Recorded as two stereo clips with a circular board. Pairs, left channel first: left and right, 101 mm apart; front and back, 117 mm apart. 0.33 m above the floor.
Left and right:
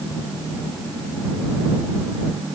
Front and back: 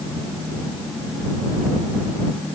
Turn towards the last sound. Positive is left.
No sound to turn to.